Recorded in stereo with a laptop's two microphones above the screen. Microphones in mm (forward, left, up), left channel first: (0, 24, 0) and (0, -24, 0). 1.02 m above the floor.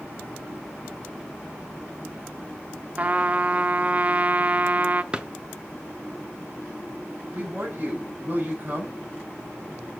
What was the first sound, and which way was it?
A trumpet, 35° right (ahead or behind).